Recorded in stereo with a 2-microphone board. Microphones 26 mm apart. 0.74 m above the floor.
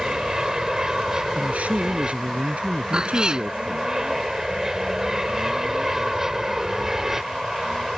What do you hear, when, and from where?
0.0 s an aircraft: 25° right (ahead or behind); by 8.0 s 15° right (ahead or behind)
1.4 s a man speaking: 65° right (ahead or behind)
2.9 s a cat meowing: 30° right (ahead or behind)